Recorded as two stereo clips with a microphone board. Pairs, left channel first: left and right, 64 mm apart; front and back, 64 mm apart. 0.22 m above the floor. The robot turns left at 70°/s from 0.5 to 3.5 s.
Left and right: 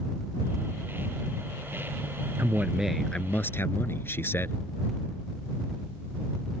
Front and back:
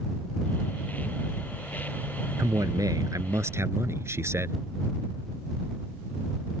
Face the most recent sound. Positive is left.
turn(degrees=140)